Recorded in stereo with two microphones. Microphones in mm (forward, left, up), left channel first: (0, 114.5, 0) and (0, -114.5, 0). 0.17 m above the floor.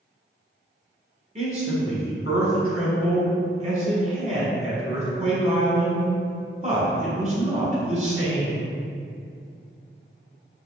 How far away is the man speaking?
About 1.1 m.